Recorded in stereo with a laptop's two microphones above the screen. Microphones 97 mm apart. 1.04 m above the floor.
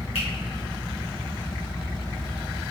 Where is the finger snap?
75° left (ahead or behind), 1.4 m.